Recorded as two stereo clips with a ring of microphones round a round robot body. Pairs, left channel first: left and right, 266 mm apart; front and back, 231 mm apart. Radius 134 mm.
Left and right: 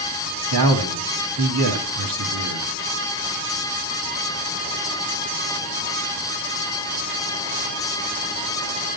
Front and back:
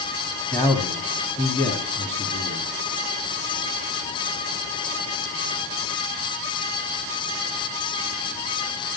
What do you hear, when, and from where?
0.5 s a man speaking: 80° right, 3 m